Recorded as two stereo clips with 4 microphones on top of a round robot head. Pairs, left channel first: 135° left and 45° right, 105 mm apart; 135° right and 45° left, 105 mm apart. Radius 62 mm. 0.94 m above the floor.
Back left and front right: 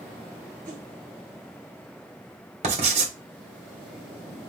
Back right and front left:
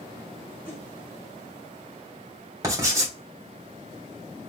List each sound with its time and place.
0.7 s a whoosh: 35° right, 1.7 m
2.6 s writing: 20° right, 1.6 m